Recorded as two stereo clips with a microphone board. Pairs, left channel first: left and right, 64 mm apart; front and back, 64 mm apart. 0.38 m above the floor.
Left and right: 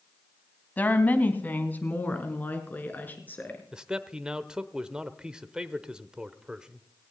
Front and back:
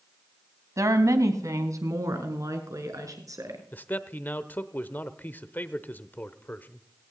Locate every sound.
0.8 s a woman speaking: 155° left, 2 m; by 3.6 s 150° left, 5 m
3.7 s a man speaking: 25° right, 1.0 m